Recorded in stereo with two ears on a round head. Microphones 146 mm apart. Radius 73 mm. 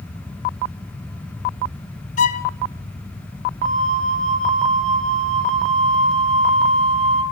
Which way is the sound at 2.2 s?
45° left (ahead or behind).